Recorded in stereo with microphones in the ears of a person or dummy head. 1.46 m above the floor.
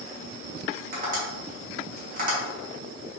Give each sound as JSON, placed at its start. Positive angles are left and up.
{"t": 0.9, "sound": "tapping", "side_deg": -50, "distance_m": 1.3}